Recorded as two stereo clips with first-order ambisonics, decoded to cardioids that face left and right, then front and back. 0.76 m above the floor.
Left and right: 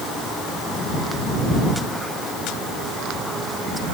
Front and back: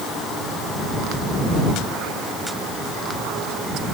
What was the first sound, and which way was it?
Only background noise.